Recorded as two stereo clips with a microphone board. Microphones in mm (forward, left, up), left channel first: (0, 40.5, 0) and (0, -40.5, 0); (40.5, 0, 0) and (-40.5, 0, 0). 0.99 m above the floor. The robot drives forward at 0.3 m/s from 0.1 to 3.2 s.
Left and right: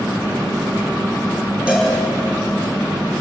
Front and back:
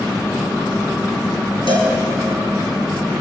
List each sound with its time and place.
1.7 s a cowbell: 165° right, 6 m